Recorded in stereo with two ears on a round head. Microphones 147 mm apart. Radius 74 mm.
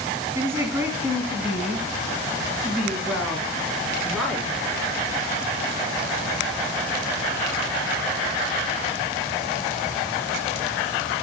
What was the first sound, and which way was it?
A woman speaking, 20° right (ahead or behind).